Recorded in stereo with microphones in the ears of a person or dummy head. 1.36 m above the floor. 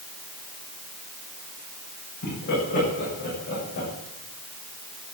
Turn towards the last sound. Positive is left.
turn(degrees=50)  # may be behind; listen again after turning